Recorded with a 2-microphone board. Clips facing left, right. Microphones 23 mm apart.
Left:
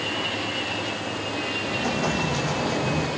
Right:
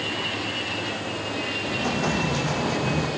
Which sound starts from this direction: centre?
An explosion, at 1.6 s.